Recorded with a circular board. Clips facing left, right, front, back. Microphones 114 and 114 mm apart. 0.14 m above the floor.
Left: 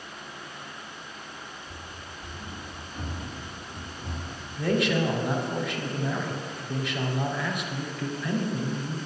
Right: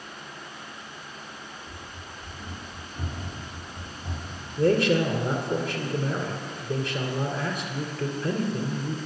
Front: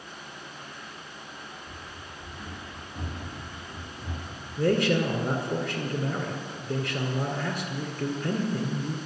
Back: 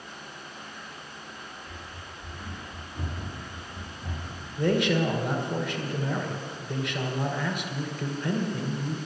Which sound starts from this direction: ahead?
Running footsteps, at 1.6 s.